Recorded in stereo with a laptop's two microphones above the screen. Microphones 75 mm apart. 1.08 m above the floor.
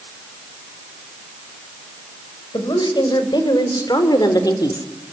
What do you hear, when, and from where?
2.5 s a woman speaking: 80° left, 6 m; by 4.9 s 50° left (ahead or behind), 3 m